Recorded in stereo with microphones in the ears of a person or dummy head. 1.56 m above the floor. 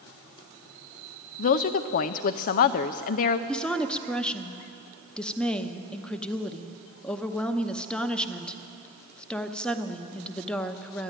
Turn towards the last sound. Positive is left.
turn(degrees=5)  # may be behind; listen again after turning